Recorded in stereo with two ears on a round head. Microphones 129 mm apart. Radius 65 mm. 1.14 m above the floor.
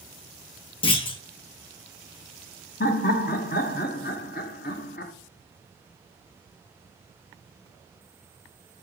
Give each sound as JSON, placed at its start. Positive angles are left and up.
{"t": 0.8, "sound": "a clunk", "side_deg": 35, "distance_m": 0.9}
{"t": 2.8, "sound": "laughter", "side_deg": 65, "distance_m": 0.9}